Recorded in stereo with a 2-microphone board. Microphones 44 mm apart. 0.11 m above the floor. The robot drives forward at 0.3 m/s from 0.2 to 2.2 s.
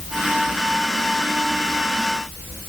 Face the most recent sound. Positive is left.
No sound to turn to.